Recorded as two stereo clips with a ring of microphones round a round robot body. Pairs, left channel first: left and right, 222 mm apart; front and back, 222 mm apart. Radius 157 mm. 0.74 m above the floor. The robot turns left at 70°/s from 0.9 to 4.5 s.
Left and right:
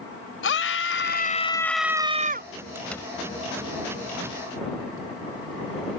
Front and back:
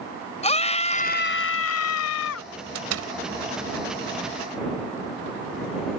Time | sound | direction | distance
0.4 | a scream | 60° left | ?
2.8 | a door slam | 170° right | ?